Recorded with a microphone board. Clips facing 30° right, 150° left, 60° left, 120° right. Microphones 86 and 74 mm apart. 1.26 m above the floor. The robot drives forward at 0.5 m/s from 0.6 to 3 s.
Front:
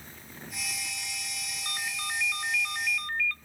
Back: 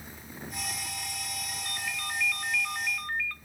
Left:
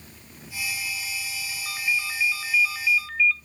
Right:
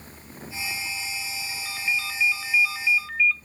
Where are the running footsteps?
I don't hear running footsteps.